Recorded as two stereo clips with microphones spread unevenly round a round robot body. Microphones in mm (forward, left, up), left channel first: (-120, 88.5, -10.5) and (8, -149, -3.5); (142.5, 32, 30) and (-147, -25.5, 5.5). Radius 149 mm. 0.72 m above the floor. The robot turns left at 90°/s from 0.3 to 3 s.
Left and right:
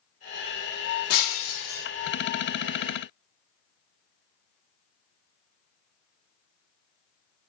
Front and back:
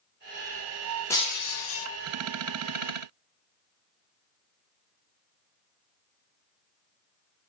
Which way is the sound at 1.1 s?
95° left.